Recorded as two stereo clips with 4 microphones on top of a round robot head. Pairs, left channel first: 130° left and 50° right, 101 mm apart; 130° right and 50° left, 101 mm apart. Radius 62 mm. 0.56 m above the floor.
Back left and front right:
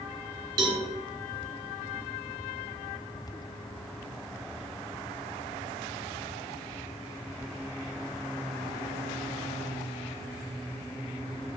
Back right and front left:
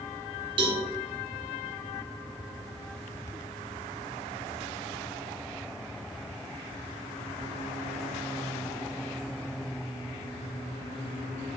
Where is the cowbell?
5° left, 1.4 m.